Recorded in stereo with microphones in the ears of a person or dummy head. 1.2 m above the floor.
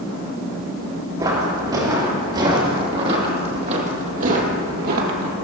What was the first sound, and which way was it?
Footsteps, 20° right (ahead or behind).